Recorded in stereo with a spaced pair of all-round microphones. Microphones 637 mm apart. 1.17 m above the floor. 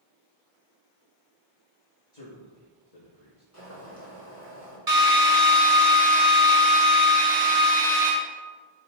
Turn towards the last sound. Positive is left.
turn(degrees=-75)  # may be behind; listen again after turning